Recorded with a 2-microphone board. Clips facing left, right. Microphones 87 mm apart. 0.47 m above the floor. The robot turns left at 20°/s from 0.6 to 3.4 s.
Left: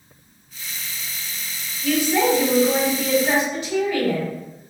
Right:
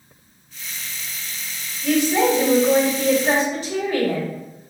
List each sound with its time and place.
1.8 s a woman speaking: 20° right, 1.5 m; by 4.3 s 55° right, 1.5 m